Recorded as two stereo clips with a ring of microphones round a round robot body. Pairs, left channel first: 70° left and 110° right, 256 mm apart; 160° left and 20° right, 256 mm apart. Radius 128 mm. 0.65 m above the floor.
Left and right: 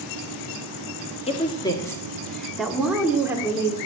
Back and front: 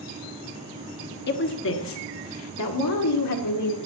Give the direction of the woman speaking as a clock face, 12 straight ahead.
8 o'clock.